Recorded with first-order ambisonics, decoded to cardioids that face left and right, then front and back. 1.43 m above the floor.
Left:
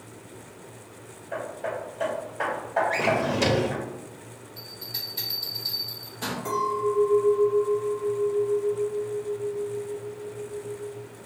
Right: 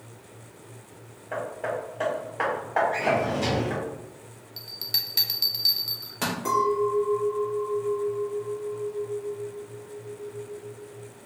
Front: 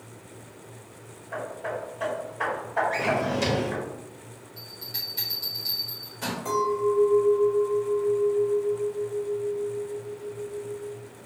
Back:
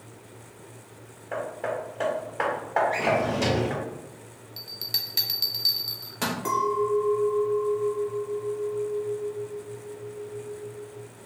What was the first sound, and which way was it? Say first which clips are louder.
Hammering: right 1 dB, back 2 dB; 150° right.